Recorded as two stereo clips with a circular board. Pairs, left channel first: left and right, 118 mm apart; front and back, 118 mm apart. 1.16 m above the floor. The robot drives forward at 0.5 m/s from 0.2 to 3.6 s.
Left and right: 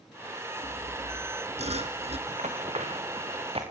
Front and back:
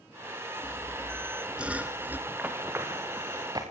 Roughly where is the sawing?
Right.